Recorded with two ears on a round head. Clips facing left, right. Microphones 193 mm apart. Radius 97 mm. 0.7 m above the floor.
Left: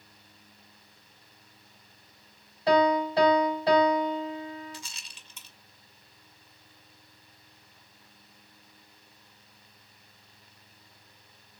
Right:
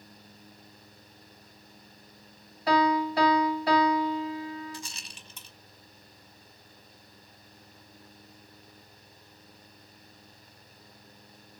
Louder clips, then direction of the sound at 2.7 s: Left 2 dB; 20° left (ahead or behind).